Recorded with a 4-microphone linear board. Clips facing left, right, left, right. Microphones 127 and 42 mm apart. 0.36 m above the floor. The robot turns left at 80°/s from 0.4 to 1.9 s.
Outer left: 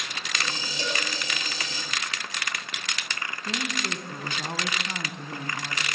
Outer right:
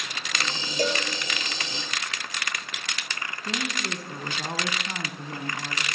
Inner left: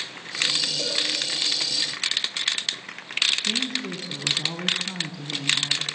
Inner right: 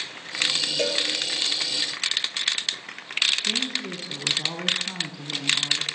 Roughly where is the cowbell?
Right.